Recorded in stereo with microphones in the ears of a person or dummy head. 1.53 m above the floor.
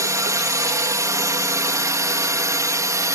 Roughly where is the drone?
Centre.